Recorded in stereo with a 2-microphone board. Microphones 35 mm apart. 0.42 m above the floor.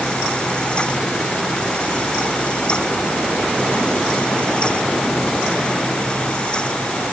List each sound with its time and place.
Only background noise.